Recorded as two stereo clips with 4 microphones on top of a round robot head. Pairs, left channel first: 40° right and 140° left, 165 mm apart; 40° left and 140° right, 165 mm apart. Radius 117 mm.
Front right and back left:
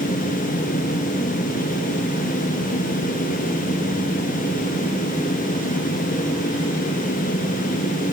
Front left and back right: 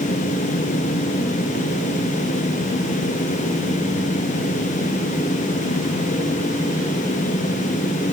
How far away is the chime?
No chime in this recording.